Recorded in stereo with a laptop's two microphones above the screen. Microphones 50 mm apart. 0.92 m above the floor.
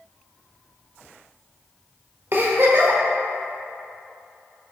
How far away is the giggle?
About 1.0 m.